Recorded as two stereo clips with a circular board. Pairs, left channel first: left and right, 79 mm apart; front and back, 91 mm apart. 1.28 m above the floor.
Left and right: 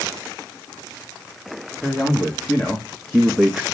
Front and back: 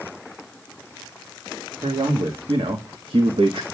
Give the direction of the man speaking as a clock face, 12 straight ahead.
6 o'clock.